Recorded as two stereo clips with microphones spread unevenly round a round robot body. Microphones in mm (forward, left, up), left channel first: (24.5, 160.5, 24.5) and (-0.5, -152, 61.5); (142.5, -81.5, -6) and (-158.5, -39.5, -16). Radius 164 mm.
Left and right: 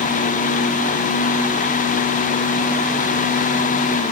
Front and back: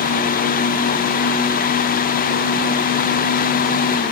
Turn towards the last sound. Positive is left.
No sound to turn to.